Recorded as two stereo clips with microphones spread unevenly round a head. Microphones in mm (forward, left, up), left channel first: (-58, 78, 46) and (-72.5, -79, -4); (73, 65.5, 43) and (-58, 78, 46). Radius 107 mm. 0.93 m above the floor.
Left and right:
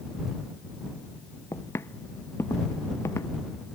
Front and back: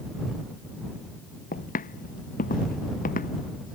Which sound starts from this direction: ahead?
Footsteps, at 1.5 s.